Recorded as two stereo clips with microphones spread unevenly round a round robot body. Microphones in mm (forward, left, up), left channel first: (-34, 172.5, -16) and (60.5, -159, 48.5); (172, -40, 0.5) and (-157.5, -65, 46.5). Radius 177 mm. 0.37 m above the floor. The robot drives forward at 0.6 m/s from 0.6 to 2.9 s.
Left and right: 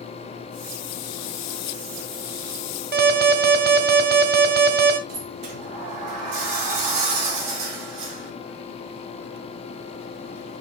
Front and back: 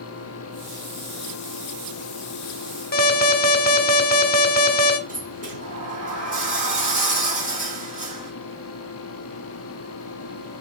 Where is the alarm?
15° right, 1.0 m.